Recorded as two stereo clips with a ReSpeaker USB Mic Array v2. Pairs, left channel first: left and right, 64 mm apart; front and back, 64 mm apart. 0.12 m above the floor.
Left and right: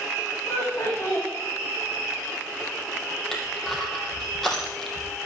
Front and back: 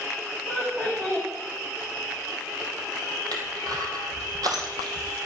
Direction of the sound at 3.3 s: Straight behind.